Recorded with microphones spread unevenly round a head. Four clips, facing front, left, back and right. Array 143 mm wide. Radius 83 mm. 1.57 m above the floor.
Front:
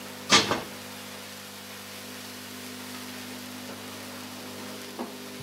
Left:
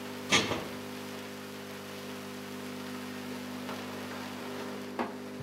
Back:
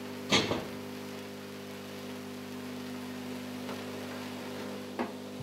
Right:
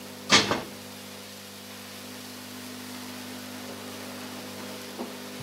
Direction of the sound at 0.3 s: 65° right.